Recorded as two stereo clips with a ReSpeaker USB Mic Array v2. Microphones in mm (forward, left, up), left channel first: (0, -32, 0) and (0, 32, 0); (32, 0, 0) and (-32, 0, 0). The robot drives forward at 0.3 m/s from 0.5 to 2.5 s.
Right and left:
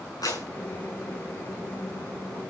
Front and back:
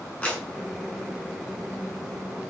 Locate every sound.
0.2 s a clap: 70° right, 6.5 m